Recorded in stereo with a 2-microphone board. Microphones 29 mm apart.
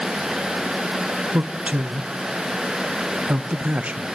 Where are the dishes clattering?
No dishes clattering in this recording.